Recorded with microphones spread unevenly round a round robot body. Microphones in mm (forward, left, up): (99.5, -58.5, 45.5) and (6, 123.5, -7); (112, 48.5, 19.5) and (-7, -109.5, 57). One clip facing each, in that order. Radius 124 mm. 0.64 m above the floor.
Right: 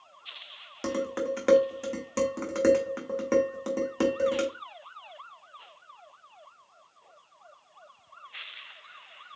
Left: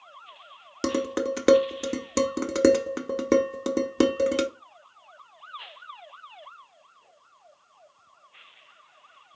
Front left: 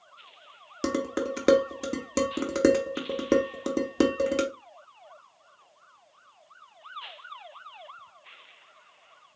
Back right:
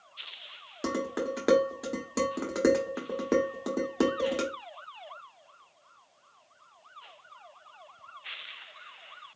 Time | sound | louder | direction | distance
0.8 | dishes clattering | left 4 dB, front left 3 dB | 105° left | 0.9 m